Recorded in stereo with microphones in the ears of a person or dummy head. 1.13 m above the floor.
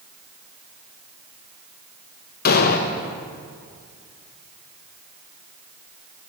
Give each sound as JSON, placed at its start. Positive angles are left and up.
{"t": 2.5, "sound": "an explosion", "side_deg": 55, "distance_m": 0.7}